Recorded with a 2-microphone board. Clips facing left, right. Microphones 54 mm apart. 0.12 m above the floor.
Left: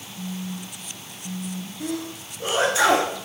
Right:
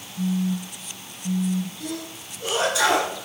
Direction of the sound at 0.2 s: 45° right (ahead or behind).